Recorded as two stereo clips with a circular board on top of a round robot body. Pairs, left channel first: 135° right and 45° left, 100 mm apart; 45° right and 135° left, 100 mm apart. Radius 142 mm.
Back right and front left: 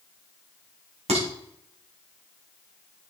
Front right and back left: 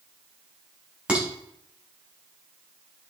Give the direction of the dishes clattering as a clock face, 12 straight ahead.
10 o'clock.